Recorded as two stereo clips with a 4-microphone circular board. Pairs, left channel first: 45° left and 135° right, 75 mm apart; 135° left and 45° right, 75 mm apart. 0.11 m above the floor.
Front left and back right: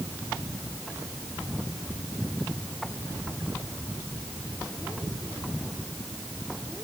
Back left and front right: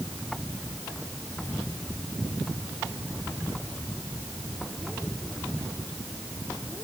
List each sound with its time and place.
Only background noise.